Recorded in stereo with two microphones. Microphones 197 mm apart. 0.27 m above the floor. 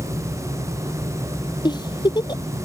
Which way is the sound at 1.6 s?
20° left (ahead or behind).